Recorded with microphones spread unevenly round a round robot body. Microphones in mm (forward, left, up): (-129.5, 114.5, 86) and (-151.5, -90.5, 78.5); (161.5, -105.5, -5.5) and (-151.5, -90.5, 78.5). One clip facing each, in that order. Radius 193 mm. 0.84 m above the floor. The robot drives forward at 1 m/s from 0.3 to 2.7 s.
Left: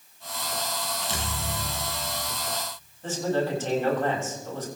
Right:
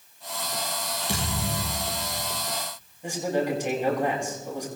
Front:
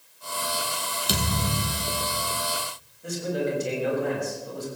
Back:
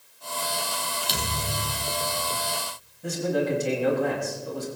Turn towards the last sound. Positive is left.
turn(degrees=-170)